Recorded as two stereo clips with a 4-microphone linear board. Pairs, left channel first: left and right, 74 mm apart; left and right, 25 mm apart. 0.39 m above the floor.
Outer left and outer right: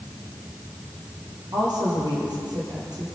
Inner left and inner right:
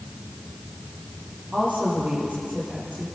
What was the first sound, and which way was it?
A woman speaking, 70° right (ahead or behind).